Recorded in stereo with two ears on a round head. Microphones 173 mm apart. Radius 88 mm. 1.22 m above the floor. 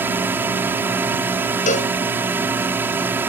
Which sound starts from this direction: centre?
A drone, at 0.0 s.